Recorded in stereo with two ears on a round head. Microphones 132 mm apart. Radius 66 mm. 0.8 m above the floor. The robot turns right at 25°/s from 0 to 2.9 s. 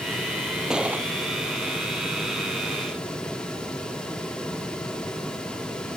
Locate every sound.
0.7 s a gunshot: 5° right (ahead or behind); by 1.1 s 15° right (ahead or behind)